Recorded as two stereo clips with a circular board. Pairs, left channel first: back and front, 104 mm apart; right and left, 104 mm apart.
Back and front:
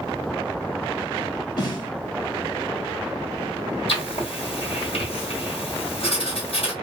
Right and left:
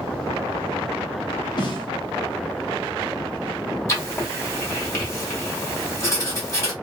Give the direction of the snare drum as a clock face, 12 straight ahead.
4 o'clock.